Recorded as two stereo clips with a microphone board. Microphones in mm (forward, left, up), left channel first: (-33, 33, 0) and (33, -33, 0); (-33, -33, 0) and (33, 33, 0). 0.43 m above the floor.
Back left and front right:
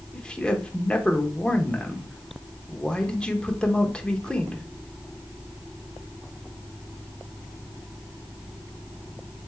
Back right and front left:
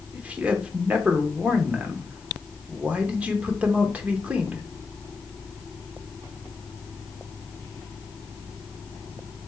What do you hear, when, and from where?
0.1 s a man speaking: 85° left, 0.7 m